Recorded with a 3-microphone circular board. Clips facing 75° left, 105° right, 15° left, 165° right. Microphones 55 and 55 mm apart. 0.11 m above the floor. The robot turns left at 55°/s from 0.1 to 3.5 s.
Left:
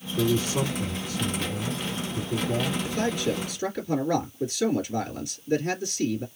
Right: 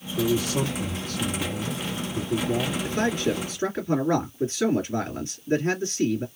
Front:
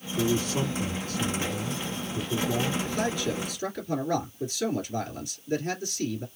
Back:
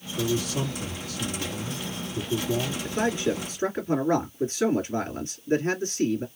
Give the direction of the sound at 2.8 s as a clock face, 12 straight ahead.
3 o'clock.